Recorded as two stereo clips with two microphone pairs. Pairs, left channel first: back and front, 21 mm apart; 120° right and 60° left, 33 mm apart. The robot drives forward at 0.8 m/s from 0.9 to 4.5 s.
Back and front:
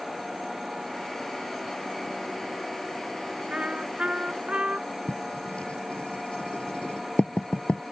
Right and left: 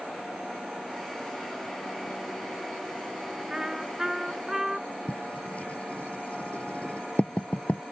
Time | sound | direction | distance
3.5 | a trumpet | 15° right | ?
5.1 | writing | 170° right | ?